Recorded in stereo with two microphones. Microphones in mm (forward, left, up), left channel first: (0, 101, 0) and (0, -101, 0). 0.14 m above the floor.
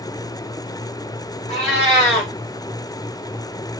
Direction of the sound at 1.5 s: 35° left (ahead or behind).